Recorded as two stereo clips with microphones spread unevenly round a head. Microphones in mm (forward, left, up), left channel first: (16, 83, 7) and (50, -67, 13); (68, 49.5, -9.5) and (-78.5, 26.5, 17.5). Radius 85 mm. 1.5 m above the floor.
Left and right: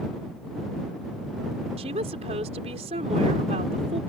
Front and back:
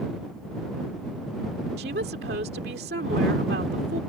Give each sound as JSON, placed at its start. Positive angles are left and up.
{"t": 1.8, "sound": "a woman speaking", "azimuth_deg": -135}